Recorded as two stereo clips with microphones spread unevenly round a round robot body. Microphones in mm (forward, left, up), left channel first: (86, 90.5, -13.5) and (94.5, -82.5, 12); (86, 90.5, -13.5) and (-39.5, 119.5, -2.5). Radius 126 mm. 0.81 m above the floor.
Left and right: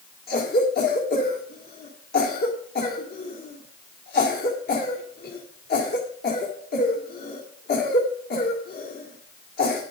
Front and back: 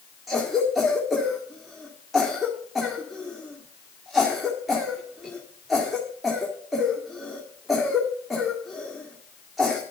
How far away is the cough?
About 2 m.